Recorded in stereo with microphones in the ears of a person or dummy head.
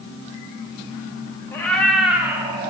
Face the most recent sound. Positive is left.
turn(degrees=-30)  # may be behind; listen again after turning